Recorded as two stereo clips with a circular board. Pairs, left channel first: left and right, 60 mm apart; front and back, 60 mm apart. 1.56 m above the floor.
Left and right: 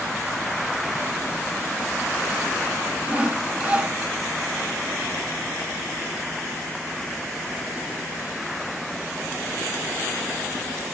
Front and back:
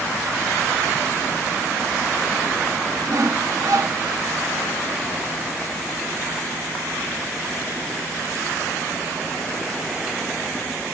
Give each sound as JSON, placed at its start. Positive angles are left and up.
{"t": 3.1, "sound": "sawing", "azimuth_deg": -160, "distance_m": 1.0}